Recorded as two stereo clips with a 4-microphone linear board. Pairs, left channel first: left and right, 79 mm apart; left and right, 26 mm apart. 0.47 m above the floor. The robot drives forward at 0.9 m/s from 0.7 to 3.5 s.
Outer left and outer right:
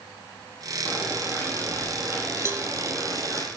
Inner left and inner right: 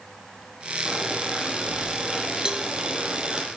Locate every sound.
0.8 s boiling: 30° right (ahead or behind), 6 m; by 3.5 s 45° right (ahead or behind), 4 m
2.5 s a cowbell: 35° right (ahead or behind), 0.9 m; by 2.7 s 25° right (ahead or behind), 1.1 m